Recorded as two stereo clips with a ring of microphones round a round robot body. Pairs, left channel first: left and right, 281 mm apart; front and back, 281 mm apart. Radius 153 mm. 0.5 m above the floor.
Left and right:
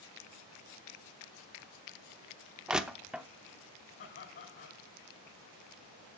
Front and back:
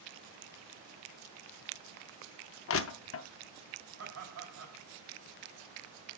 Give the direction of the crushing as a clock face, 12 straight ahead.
12 o'clock.